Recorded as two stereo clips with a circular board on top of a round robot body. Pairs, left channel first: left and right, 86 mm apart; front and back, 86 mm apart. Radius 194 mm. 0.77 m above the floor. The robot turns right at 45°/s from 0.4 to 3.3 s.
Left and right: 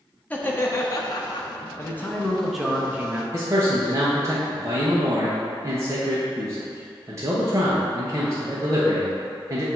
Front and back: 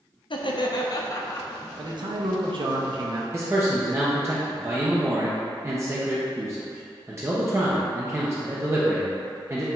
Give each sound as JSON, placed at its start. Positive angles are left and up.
{"t": 0.3, "sound": "laughter", "azimuth_deg": 20, "distance_m": 0.9}
{"t": 1.8, "sound": "a man speaking", "azimuth_deg": 145, "distance_m": 1.2}
{"t": 3.3, "sound": "a man speaking", "azimuth_deg": -130, "distance_m": 1.1}